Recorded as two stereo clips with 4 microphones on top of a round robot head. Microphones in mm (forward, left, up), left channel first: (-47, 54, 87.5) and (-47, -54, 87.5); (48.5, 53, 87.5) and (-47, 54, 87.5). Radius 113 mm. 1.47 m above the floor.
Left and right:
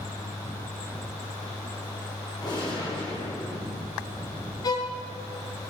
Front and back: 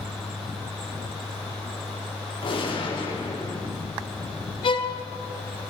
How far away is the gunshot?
About 3 m.